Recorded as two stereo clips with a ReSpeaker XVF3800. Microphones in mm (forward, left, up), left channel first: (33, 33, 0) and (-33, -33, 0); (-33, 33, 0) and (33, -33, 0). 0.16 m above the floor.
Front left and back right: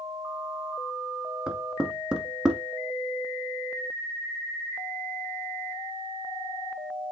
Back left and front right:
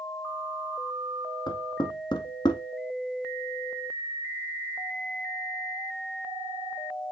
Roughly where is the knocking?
Behind left.